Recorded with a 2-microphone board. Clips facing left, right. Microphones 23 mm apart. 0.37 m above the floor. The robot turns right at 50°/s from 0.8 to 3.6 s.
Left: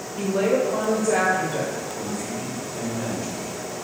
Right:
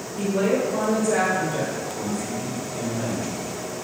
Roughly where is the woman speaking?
Left.